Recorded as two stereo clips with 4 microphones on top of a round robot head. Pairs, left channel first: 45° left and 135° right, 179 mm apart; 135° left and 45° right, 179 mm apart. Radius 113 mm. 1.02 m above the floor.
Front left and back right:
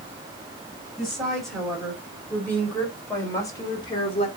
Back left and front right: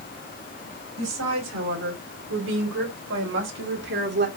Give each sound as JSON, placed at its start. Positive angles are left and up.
{"t": 1.0, "sound": "a woman speaking", "azimuth_deg": -45, "distance_m": 7.0}